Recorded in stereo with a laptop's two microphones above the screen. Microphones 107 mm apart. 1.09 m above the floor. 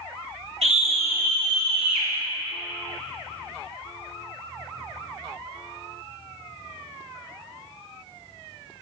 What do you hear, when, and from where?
0.6 s a scream: 70° right (ahead or behind), 2 m; by 2.1 s 75° right (ahead or behind), 2 m